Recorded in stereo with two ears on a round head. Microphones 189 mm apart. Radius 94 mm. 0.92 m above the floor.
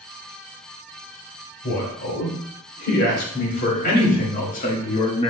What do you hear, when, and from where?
1.6 s a man speaking: 55° left (ahead or behind), 4 m; by 5.3 s 25° left (ahead or behind), 1.3 m